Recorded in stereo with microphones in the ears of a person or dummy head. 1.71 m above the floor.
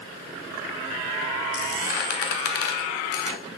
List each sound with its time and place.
1.5 s a squeak: 50° left (ahead or behind), 1.3 m